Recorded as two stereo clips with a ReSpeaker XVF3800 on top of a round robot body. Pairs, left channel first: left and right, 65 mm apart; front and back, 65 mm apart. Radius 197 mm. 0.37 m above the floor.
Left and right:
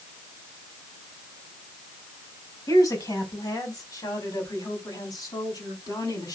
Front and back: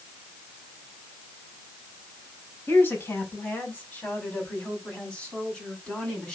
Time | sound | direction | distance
2.7 | a woman speaking | 60° left | 4.5 m